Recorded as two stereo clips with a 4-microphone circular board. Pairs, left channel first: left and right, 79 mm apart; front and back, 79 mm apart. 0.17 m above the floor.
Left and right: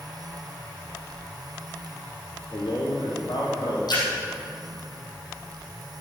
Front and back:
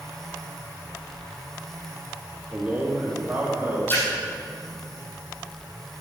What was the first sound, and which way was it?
A man speaking, 110° left.